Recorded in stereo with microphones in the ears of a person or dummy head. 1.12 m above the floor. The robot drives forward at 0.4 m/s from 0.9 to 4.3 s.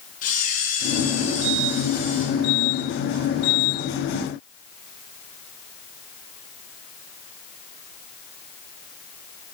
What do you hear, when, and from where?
0.2 s a camera shutter: 45° left (ahead or behind), 1.2 m; by 2.2 s 30° left (ahead or behind), 1.6 m